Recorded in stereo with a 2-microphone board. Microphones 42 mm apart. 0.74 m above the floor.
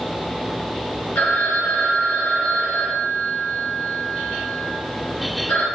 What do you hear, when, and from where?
1.1 s a phone ringing: 65° left (ahead or behind), 1.1 m